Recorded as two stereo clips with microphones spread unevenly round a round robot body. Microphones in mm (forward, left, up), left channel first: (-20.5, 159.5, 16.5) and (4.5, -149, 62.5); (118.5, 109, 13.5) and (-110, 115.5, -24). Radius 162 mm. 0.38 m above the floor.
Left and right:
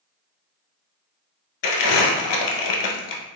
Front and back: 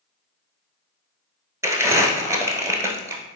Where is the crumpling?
95° left, 1.0 m.